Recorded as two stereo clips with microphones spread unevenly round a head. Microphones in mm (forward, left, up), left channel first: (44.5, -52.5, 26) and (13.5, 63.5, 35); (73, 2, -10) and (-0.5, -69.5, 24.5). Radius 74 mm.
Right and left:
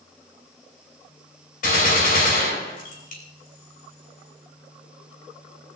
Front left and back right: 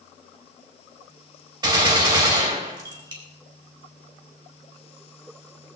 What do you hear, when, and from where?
1.6 s a gunshot: 85° right, 5.5 m